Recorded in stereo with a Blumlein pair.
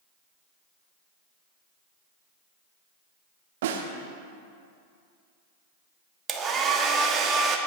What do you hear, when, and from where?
3.6 s a snare drum: 55° right, 1.1 m
6.3 s a hair dryer: 20° right, 1.1 m